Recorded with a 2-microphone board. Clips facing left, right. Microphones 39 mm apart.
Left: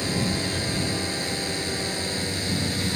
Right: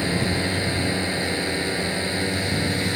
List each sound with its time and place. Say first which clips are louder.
0.0 s a drone: right 3 dB; 25° right (ahead or behind)